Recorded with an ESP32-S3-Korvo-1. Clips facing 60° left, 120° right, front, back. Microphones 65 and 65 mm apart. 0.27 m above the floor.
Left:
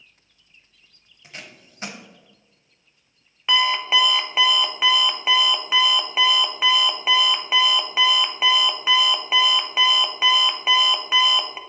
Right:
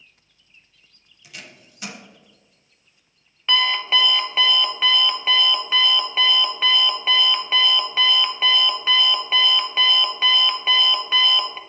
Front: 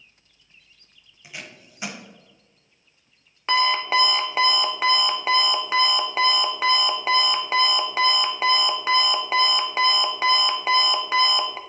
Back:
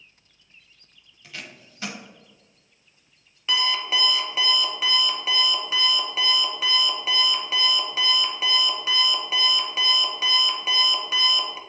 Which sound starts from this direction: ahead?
An alarm clock, at 3.5 s.